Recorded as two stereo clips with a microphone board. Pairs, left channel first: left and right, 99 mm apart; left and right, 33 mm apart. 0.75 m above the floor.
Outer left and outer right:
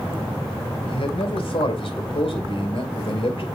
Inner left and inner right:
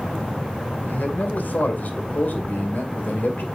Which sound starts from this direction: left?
A man speaking, at 0.8 s.